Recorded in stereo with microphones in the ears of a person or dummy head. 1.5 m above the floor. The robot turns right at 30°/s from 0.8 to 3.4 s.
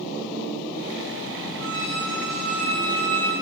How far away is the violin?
About 1.7 m.